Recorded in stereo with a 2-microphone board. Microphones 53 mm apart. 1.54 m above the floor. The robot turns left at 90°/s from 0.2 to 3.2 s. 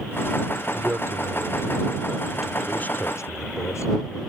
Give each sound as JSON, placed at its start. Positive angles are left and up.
{"t": 0.8, "sound": "a man speaking", "side_deg": -25}